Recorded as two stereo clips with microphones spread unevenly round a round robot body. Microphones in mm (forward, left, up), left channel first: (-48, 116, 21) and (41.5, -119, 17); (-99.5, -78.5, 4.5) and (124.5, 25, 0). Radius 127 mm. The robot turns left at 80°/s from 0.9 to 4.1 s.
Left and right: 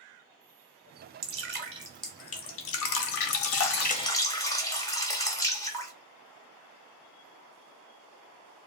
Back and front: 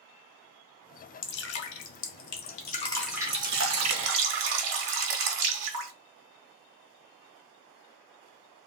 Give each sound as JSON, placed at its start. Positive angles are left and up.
{"t": 1.2, "sound": "dripping", "azimuth_deg": -95, "distance_m": 0.8}